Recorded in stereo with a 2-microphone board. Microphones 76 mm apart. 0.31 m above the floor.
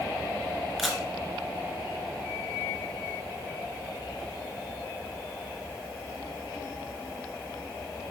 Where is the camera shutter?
Centre (ahead or behind), 1.7 m.